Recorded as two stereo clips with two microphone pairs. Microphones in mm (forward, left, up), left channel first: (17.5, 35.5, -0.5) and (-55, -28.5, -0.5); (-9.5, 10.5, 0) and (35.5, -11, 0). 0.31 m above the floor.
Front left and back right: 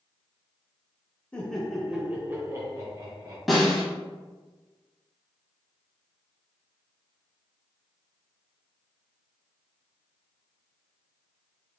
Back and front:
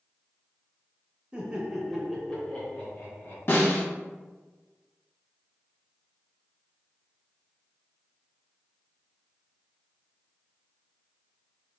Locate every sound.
1.3 s laughter: 15° right, 1.0 m; by 3.4 s 170° right, 1.6 m
3.5 s a snare drum: 135° left, 1.6 m